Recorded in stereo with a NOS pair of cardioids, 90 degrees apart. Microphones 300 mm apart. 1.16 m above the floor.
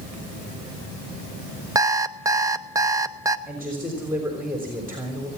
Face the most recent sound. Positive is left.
turn(degrees=-5)